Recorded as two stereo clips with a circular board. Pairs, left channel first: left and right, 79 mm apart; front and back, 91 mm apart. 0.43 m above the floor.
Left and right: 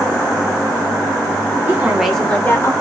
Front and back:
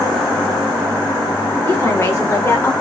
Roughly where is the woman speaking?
Ahead right.